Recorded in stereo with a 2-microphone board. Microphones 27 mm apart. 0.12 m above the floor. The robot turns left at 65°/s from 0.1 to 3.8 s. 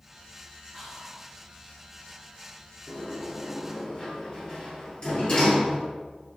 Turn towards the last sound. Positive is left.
turn(degrees=35)  # may be behind; listen again after turning